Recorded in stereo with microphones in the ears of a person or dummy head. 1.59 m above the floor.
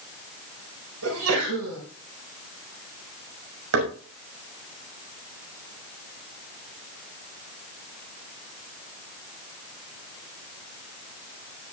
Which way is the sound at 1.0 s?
70° right (ahead or behind).